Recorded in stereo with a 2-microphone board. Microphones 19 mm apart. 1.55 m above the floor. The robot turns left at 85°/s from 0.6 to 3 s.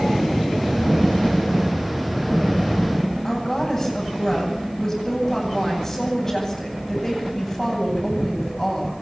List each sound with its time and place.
3.2 s a woman speaking: 20° left (ahead or behind), 8.5 m